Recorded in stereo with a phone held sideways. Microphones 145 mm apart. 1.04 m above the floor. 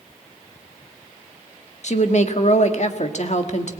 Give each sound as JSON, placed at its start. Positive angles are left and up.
{"t": 1.8, "sound": "a woman speaking", "side_deg": 55, "distance_m": 1.5}